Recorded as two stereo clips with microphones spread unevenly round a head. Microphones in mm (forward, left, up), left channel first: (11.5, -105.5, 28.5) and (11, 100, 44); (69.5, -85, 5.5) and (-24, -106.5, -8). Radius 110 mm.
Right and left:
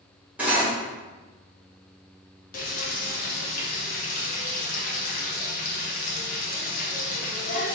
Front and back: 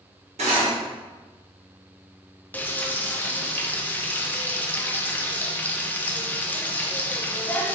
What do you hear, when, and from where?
0.4 s cutlery clinking: 175° left, 1.0 m
2.5 s frying: 45° right, 0.7 m